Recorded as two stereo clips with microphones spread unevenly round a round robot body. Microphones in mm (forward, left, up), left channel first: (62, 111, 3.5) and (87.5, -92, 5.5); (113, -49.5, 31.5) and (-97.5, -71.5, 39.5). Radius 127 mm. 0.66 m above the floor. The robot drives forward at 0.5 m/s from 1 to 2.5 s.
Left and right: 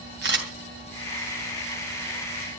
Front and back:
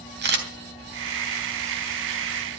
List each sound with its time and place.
0.2 s a camera shutter: 140° right, 3 m